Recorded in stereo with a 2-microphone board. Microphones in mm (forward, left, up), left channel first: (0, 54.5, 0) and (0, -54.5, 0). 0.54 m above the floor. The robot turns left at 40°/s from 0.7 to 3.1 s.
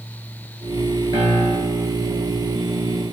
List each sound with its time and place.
1.1 s a piano: 110° right, 9 m; by 1.9 s 140° right, 9 m